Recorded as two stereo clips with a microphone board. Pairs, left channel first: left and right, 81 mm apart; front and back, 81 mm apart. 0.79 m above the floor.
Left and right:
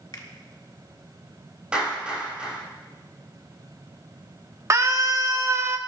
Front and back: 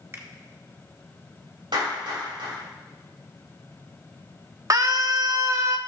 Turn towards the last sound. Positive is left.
turn(degrees=-140)